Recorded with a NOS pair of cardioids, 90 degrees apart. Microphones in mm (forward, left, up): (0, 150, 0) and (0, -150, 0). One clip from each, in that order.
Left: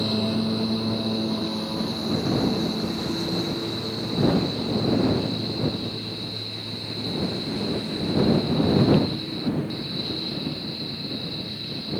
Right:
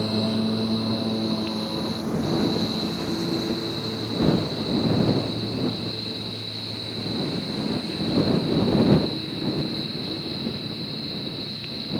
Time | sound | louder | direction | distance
0.0 | a lawn mower | even | 5° right | ?